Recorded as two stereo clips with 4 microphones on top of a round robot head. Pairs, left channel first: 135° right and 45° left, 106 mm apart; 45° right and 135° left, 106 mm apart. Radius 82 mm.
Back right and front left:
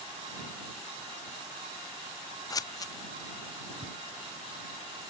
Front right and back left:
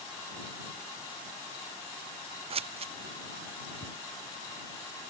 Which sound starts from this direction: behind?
Scissors, at 2.5 s.